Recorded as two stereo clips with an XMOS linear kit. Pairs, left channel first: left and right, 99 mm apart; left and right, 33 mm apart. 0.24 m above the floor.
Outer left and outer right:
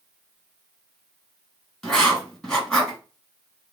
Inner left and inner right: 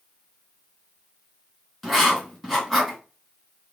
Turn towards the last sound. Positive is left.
turn(degrees=5)  # may be behind; listen again after turning